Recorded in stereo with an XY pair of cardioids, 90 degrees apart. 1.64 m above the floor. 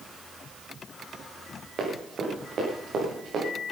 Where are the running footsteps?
55° right, 8 m.